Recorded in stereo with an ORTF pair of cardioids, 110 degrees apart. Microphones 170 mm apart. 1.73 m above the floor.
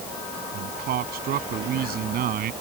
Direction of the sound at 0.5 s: 65° right.